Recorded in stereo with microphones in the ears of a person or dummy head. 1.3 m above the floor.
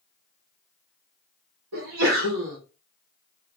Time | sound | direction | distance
1.7 | a sneeze | 85° right | 1.9 m